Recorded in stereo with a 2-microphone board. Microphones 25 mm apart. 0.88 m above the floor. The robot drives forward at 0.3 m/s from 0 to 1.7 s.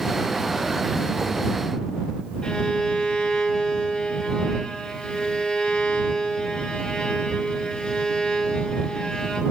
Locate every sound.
2.4 s a violin: 25° left (ahead or behind), 6 m